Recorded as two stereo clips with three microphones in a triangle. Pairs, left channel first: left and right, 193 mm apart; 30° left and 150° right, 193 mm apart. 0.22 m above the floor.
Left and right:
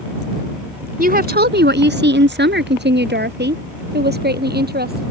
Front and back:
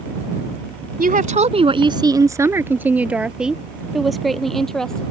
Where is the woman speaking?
120° right; by 5.0 s 55° right.